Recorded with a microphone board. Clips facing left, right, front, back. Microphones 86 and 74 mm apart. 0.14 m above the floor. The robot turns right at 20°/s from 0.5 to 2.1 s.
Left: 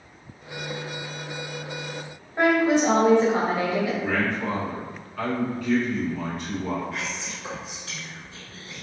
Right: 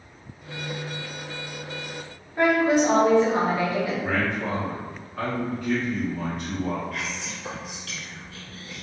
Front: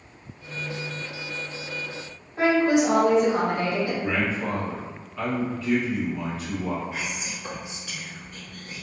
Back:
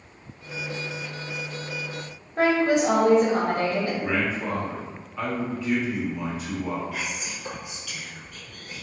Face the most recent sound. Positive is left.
turn(degrees=40)